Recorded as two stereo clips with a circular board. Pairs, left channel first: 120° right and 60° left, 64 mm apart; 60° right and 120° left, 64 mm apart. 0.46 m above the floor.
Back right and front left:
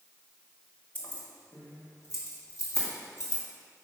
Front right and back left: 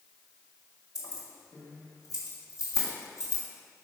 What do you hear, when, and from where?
0.9 s keys jangling: 60° right, 1.5 m; by 3.4 s 95° right, 2.5 m